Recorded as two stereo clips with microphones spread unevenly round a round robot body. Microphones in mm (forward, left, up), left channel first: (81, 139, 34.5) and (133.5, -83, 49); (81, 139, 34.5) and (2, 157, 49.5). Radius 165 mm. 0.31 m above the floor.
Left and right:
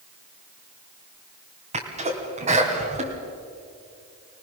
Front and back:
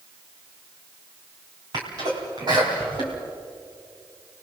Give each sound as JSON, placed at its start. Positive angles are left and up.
{"t": 1.7, "sound": "a sneeze", "azimuth_deg": -140, "distance_m": 2.5}